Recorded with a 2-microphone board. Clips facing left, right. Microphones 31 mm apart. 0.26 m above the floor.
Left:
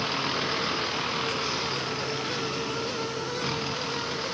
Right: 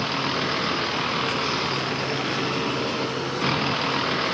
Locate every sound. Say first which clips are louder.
0.0 s a vehicle: right 3 dB; 10° right (ahead or behind); by 4.3 s 35° right (ahead or behind)